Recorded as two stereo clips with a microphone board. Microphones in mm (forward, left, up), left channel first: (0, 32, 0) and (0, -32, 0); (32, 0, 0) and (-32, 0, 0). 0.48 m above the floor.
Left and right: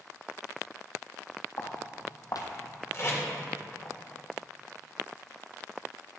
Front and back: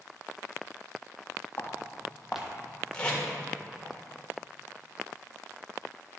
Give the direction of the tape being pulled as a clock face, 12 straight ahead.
10 o'clock.